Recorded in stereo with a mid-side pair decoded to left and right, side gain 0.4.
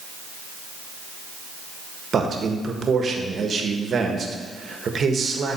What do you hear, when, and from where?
2.1 s a man speaking: 50° right, 1.4 m